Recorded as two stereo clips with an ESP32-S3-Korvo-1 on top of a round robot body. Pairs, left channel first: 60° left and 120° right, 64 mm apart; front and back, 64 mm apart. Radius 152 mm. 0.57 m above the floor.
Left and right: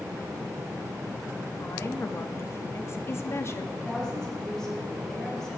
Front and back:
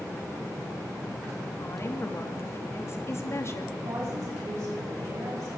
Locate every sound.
1.6 s a woman speaking: 30° left, 1.6 m
3.8 s a woman speaking: 140° left, 6 m